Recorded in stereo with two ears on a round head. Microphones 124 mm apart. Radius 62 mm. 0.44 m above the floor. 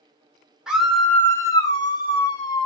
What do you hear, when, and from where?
0.7 s a scream: 5° right (ahead or behind), 0.9 m; by 2.7 s 30° left (ahead or behind), 1.6 m